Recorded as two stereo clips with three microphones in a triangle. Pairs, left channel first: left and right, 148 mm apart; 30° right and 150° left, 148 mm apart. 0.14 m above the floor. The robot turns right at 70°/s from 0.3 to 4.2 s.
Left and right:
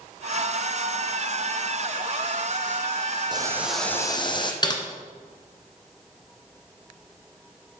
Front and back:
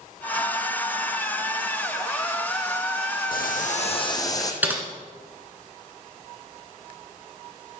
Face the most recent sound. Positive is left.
turn(degrees=85)